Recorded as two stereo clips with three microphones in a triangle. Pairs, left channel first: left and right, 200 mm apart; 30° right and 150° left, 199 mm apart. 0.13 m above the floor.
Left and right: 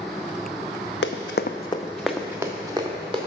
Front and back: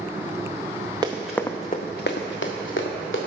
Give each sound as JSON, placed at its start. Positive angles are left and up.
{"t": 1.0, "sound": "running footsteps", "azimuth_deg": 85, "distance_m": 0.7}